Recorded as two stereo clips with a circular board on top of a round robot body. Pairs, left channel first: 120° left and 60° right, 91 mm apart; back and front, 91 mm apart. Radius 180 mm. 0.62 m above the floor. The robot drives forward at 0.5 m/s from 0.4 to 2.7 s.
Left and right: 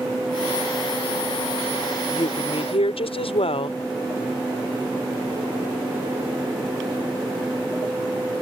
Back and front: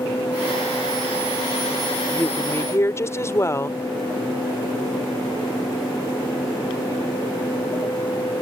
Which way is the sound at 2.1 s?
110° left.